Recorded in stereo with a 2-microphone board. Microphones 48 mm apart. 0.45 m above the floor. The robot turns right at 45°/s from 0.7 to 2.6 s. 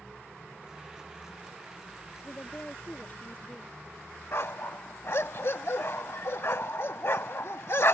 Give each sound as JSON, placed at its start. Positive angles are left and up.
{"t": 2.2, "sound": "a woman speaking", "side_deg": 50}
{"t": 4.3, "sound": "a dog barking", "side_deg": 60}